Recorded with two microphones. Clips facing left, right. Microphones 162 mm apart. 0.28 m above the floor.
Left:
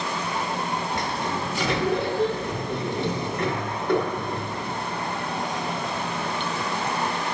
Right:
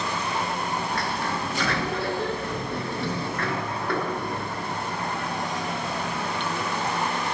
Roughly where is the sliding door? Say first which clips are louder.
Left 1 dB; left.